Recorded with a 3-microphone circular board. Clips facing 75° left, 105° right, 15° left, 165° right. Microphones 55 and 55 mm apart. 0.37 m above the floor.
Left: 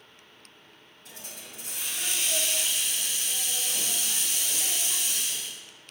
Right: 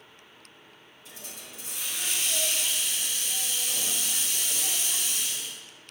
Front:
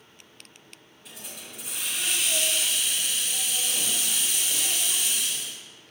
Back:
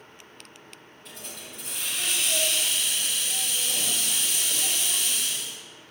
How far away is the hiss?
About 1.7 m.